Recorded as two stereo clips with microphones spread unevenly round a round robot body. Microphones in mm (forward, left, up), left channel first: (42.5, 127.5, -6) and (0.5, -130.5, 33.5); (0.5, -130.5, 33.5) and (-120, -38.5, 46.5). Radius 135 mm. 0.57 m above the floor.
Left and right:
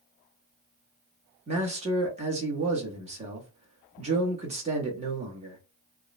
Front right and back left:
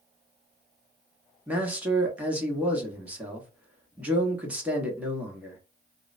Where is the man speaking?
140° right, 0.9 m.